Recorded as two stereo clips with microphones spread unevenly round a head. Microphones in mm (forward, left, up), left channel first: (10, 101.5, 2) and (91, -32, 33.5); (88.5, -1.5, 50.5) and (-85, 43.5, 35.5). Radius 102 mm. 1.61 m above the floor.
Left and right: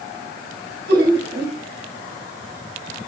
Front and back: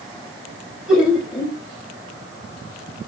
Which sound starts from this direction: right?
Laughter, at 0.9 s.